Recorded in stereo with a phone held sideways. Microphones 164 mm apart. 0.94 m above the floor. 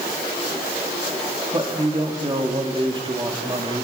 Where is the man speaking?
30° right (ahead or behind), 2 m.